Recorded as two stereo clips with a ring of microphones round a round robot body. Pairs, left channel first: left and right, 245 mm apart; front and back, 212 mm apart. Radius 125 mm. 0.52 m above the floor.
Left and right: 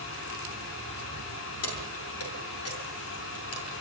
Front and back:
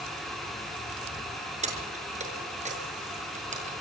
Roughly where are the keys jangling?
Behind left.